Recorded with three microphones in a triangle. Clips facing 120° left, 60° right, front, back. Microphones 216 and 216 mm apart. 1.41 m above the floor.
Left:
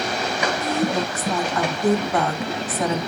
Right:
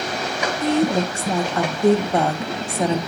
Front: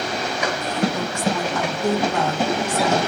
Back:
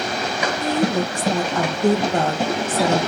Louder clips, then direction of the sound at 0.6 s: Right 7 dB, back 6 dB; 125° right.